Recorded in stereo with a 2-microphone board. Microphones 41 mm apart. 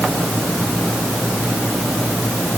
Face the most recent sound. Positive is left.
No sound to turn to.